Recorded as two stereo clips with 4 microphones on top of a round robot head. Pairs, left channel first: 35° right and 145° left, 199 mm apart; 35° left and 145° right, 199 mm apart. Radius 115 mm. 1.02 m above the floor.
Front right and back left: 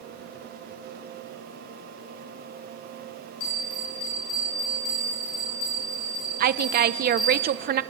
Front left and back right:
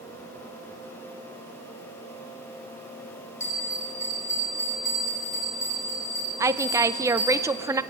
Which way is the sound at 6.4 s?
145° left.